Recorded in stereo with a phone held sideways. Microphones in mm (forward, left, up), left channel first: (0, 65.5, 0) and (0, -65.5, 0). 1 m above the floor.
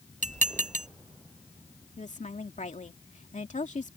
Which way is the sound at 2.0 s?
70° left (ahead or behind).